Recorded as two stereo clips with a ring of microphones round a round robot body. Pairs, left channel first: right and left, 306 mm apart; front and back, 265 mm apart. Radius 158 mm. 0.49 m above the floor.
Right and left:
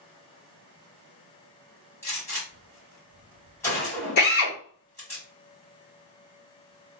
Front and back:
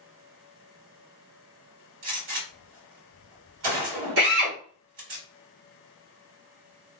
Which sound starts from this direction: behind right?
A drill, at 4.2 s.